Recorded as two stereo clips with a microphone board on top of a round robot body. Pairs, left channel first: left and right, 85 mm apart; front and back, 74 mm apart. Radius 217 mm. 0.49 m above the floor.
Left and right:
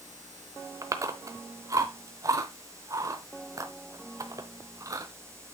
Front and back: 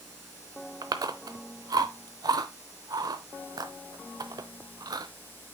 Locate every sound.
0.8 s chewing: 145° right, 0.7 m